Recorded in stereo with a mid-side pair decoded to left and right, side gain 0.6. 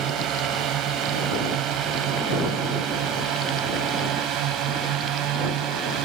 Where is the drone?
65° right.